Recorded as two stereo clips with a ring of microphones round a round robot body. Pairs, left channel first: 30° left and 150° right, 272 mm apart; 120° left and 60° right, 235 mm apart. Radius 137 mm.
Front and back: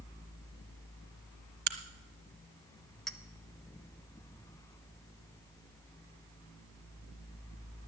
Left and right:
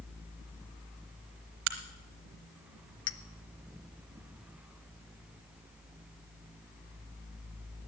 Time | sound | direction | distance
1.7 | a crack | 95° right | 1.0 m
3.1 | a clink | 120° left | 0.6 m